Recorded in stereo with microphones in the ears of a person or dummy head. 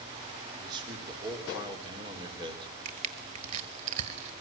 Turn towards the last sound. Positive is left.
turn(degrees=-45)  # may be behind; listen again after turning